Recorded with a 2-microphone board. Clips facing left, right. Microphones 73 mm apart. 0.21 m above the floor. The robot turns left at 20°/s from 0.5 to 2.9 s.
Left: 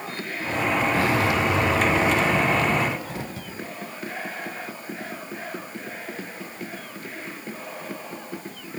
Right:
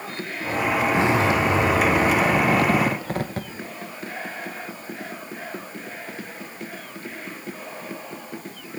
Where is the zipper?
20° right, 0.5 m; by 3.5 s 60° right, 0.5 m.